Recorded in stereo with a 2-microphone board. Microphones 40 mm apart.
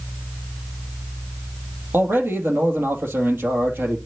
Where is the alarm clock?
I don't hear an alarm clock.